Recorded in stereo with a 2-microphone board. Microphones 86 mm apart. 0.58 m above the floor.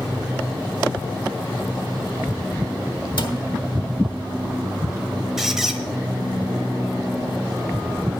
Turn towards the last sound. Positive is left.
turn(degrees=-5)  # may be behind; listen again after turning